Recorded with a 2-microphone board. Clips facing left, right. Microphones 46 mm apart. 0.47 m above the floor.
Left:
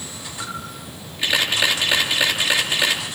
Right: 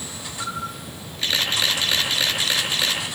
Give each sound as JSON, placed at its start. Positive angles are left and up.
{"t": 0.4, "sound": "a camera shutter", "side_deg": 15, "distance_m": 5.0}